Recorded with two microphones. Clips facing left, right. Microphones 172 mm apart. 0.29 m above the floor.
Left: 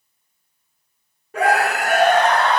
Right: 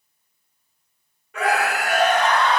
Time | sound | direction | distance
1.3 | a scream | 40° left (ahead or behind) | 1.1 m